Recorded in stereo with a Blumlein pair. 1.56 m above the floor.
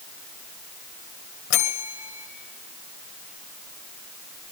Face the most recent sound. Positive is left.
turn(degrees=50)